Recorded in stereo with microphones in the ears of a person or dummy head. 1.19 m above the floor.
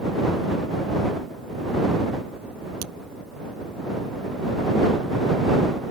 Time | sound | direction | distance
2.8 | a crack | 85° right | ?